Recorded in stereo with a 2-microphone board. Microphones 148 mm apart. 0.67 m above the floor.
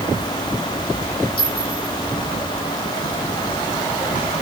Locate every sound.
1.4 s a clink: 75° left (ahead or behind), 8 m